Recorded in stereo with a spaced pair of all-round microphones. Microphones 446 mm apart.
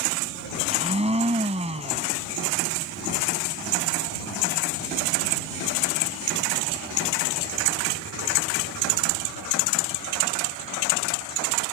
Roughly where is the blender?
Centre.